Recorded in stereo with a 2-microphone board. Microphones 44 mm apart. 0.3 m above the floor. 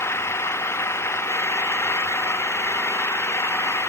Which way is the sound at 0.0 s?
85° left.